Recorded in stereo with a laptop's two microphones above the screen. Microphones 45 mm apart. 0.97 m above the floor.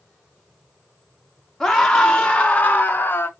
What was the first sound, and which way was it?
A scream, 10° left (ahead or behind).